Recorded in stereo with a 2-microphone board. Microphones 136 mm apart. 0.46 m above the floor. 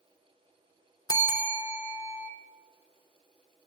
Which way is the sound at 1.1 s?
30° left (ahead or behind).